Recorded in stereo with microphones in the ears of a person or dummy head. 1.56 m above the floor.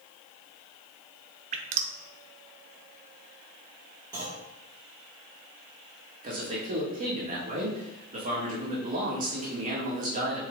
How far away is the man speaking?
About 1.7 m.